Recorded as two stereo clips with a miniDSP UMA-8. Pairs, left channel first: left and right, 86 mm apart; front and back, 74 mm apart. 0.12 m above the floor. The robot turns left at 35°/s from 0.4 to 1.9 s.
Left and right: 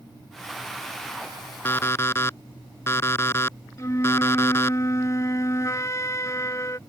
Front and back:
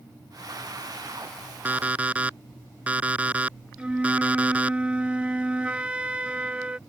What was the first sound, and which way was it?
An alarm clock, 130° left.